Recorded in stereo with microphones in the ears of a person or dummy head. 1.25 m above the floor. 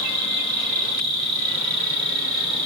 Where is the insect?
50° right (ahead or behind), 1.8 m.